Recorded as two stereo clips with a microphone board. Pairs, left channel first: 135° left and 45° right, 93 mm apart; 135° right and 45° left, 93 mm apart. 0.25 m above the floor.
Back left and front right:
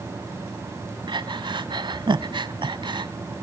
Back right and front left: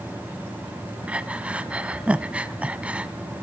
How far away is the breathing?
About 0.8 m.